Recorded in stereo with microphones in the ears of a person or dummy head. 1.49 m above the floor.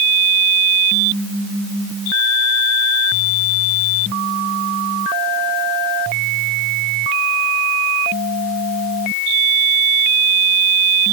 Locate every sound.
Only background noise.